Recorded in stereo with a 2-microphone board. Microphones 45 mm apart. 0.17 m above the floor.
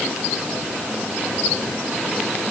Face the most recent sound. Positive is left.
No sound to turn to.